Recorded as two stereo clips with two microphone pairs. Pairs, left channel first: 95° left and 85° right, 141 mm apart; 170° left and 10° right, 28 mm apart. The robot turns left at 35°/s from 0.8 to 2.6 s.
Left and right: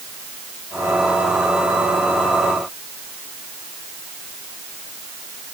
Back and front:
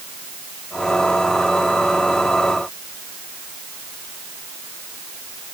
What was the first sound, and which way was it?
Only background noise.